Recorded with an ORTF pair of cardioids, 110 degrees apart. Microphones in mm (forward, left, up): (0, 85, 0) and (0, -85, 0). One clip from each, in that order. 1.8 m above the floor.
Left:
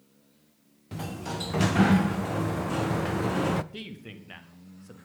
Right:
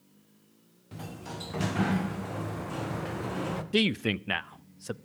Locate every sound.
0.9 s a sliding door: 30° left, 0.8 m
3.7 s a man speaking: 70° right, 0.6 m